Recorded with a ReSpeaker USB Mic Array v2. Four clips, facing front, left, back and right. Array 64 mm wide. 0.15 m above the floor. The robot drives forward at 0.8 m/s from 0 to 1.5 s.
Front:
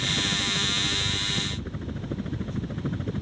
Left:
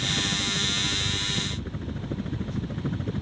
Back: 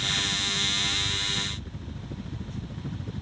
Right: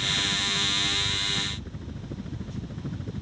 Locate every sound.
0.0 s a helicopter: 30° left; by 3.2 s 35° left